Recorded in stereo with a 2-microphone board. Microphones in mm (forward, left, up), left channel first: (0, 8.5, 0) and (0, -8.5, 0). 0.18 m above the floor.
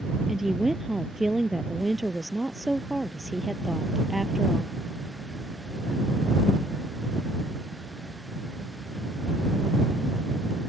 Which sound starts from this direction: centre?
A woman speaking, at 0.3 s.